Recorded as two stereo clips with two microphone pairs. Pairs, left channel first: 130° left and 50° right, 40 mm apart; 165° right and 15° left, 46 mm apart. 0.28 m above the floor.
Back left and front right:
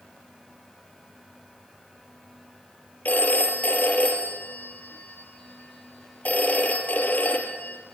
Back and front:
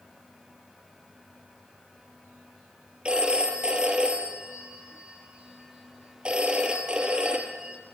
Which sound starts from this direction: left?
A phone ringing, at 3.0 s.